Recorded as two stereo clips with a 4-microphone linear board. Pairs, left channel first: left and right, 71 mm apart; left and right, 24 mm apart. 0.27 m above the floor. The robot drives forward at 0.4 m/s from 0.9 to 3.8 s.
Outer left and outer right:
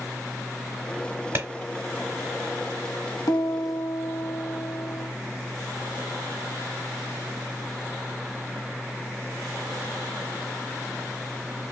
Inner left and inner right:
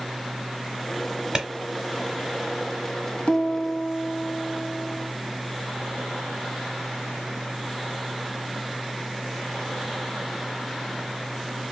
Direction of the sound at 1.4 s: 35° right (ahead or behind).